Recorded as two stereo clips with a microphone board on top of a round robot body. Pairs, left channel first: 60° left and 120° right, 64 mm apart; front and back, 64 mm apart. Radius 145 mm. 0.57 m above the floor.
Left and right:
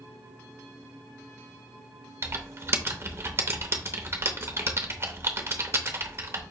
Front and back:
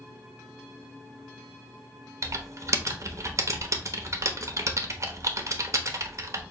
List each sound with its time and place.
2.2 s typing on a keyboard: 160° right, 1.0 m